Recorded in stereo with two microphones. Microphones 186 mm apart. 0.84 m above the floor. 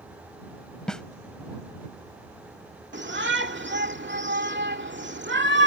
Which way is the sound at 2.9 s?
75° right (ahead or behind).